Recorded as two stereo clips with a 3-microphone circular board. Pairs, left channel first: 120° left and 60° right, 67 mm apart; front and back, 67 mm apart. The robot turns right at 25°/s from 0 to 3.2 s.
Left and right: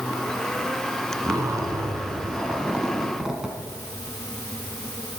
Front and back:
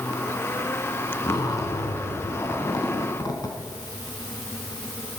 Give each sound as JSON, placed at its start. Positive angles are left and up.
{"t": 1.2, "sound": "a zipper", "azimuth_deg": -30, "distance_m": 1.8}